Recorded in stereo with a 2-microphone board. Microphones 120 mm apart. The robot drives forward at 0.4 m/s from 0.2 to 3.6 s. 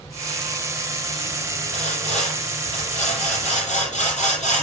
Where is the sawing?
85° left, 9 m; by 4.6 s 90° left, 9 m.